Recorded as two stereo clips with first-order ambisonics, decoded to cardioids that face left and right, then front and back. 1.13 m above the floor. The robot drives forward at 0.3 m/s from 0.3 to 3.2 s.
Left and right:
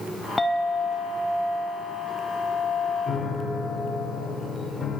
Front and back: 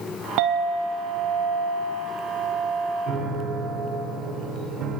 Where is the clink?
170° left, 0.8 m; by 4.1 s 175° left, 1.6 m.